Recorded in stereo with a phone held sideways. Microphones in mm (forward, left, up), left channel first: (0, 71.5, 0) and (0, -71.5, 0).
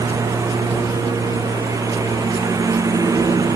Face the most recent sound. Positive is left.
turn(degrees=-25)  # may be behind; listen again after turning